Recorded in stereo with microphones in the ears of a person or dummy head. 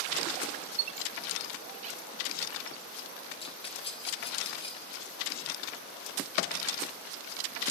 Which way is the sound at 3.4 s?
30° left (ahead or behind).